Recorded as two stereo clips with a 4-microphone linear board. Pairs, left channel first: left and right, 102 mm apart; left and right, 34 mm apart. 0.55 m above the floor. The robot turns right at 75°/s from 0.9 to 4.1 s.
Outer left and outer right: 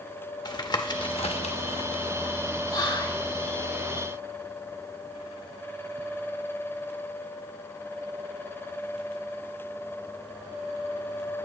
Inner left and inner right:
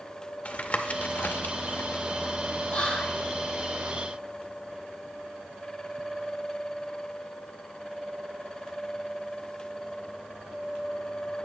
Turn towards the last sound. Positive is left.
turn(degrees=150)